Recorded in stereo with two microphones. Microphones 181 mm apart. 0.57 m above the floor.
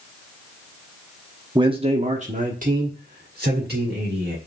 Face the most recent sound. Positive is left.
turn(degrees=-65)  # may be behind; listen again after turning